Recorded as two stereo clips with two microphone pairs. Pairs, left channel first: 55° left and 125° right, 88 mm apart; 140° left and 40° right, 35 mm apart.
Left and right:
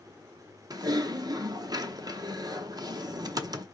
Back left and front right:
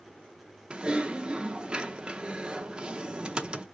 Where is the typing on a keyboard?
95° right, 0.6 m.